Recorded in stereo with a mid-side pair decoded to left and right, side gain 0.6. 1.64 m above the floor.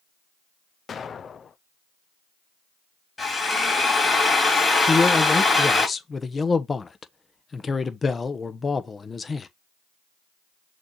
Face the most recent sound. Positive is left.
turn(degrees=25)